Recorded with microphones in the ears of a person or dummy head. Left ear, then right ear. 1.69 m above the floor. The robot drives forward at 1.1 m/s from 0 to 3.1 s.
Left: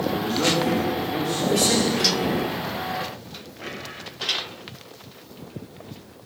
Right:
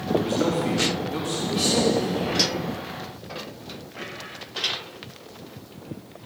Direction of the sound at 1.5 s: 40° left (ahead or behind).